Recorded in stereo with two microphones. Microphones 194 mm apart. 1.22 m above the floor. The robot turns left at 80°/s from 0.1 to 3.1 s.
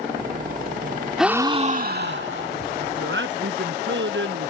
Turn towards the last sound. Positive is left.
turn(degrees=-80)